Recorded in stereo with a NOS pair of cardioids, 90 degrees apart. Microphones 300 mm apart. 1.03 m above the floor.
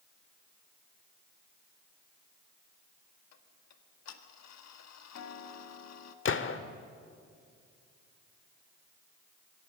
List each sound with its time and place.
3.3 s ticking: 60° left, 1.8 m
6.2 s a gunshot: 40° left, 1.6 m